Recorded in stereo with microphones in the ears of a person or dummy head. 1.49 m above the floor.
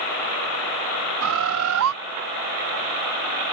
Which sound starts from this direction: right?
A bird, at 1.2 s.